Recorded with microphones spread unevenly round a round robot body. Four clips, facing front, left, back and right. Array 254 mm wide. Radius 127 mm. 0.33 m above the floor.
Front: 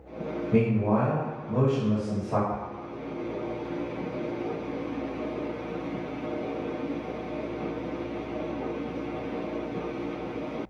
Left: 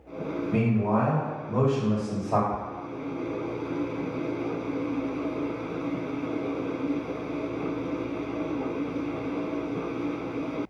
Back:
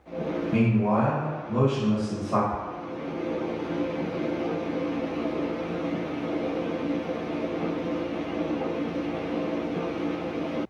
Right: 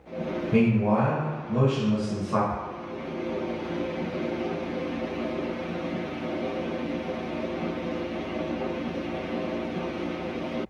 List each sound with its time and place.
0.5 s a man speaking: 35° right, 1.2 m; by 2.4 s 75° left, 1.3 m
2.5 s ticking: 45° right, 1.8 m